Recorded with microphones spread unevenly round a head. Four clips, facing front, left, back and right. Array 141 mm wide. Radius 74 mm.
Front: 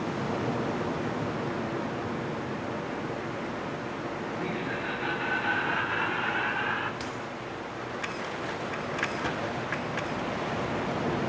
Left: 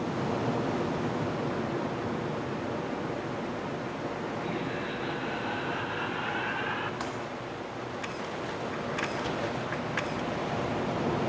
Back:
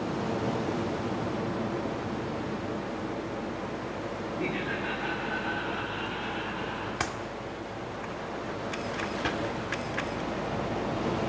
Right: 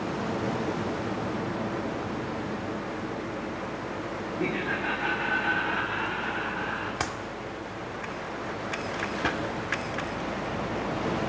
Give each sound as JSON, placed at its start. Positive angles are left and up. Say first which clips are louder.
{"t": 4.4, "sound": "laughter", "louder": "right 3 dB, back 2 dB", "azimuth_deg": -90, "distance_m": 2.0}
{"t": 7.0, "sound": "a clap", "louder": "right 3 dB, back 3 dB", "azimuth_deg": -115, "distance_m": 2.0}
{"t": 9.2, "sound": "a pop", "louder": "right 3 dB, back 1 dB", "azimuth_deg": -70, "distance_m": 1.7}